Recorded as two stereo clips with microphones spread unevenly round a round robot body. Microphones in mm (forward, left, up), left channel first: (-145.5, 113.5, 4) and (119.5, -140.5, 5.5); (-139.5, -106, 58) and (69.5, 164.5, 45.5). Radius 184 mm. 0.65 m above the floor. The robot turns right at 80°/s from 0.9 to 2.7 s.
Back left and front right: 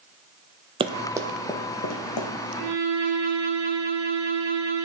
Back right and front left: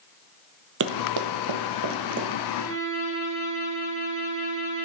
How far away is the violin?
About 4.5 m.